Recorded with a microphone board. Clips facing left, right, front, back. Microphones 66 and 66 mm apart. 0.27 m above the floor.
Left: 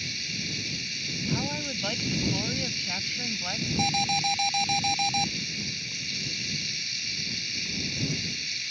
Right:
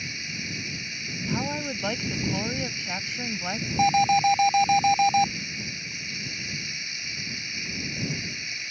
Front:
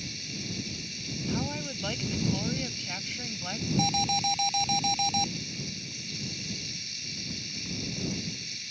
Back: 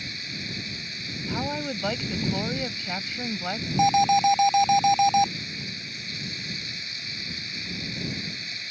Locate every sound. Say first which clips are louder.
0.0 s running water: right 2 dB, back 3 dB; 150° right
1.3 s a woman speaking: right 3 dB, back 4 dB; 150° right
3.8 s an alarm: right 9 dB, back 11 dB; 140° right